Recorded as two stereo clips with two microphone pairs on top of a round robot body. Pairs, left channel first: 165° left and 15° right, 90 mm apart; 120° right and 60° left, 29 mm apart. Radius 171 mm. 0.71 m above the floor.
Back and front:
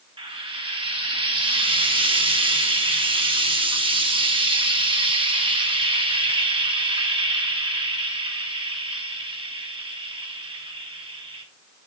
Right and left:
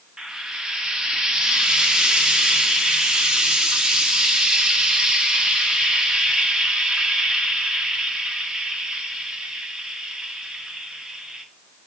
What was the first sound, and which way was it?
Frying, straight ahead.